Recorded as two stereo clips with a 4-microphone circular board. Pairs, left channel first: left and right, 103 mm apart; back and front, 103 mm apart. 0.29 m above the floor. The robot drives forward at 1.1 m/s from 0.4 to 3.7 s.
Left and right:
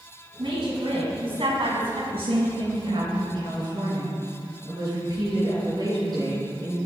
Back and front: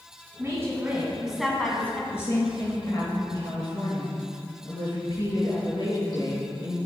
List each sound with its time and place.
0.4 s a woman speaking: 60° right, 2.5 m; by 2.0 s 110° right, 2 m
2.1 s a woman speaking: 110° right, 2.5 m; by 6.8 s 140° right, 3.5 m